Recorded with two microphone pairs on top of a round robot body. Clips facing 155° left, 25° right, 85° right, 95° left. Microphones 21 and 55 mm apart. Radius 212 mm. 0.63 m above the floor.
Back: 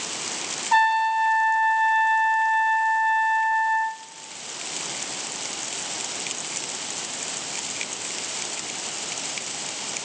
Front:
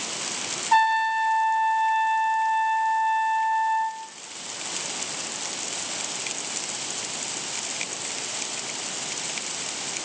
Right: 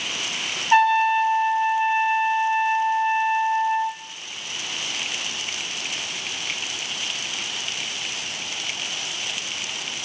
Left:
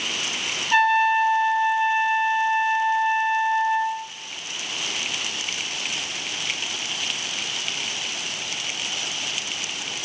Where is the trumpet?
115° right, 1.0 m.